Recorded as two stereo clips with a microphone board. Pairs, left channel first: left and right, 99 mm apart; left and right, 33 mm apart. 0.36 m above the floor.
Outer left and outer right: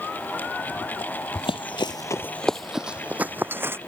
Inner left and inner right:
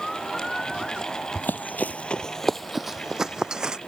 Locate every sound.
1.4 s running footsteps: 65° left (ahead or behind); by 3.8 s 25° right (ahead or behind)